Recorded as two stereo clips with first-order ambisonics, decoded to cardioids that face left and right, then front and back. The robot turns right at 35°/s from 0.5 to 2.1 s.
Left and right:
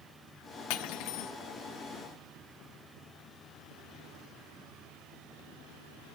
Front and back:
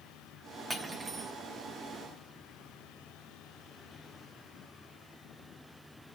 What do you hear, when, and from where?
0.7 s cutlery clinking: 95° left, 1.3 m; by 1.3 s 115° left, 1.3 m